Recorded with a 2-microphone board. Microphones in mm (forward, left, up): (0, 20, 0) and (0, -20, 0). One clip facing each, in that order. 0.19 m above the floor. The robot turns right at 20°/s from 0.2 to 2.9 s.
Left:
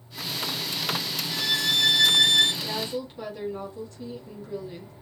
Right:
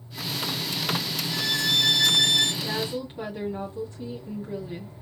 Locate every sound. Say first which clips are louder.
1.3 s a violin: even; 5° left (ahead or behind), 0.8 m; by 2.5 s 30° left (ahead or behind), 0.8 m
2.6 s a woman speaking: right 1 dB; 20° right (ahead or behind), 1.7 m